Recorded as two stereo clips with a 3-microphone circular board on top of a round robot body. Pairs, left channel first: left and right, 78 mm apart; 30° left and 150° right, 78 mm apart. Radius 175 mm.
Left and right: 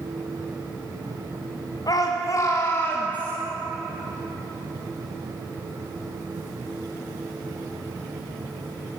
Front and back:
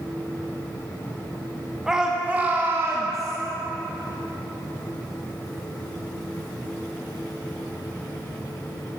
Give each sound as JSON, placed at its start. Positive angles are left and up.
{"t": 1.9, "sound": "a shout", "azimuth_deg": 125, "distance_m": 1.6}